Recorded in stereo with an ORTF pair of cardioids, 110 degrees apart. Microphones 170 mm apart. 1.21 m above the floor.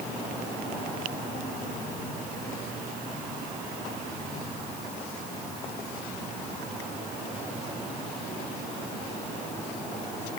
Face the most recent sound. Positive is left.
No sound to turn to.